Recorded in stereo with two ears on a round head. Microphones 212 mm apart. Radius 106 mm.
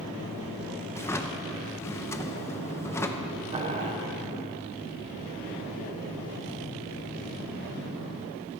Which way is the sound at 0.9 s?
10° left (ahead or behind).